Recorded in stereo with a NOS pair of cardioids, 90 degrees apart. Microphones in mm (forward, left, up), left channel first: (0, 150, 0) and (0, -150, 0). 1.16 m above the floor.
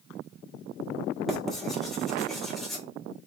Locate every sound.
1.3 s writing: straight ahead, 1.8 m